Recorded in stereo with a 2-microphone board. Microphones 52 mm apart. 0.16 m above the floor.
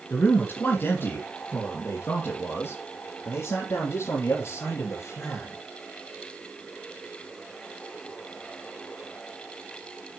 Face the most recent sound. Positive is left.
turn(degrees=70)  # may be behind; listen again after turning